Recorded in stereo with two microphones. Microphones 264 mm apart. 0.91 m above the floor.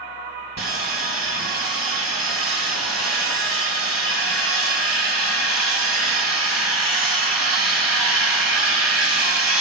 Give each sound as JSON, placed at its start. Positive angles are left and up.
{"t": 0.6, "sound": "sawing", "side_deg": 80, "distance_m": 3.0}